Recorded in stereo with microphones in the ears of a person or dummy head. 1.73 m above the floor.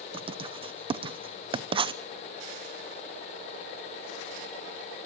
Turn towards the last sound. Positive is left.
turn(degrees=-25)  # may be behind; listen again after turning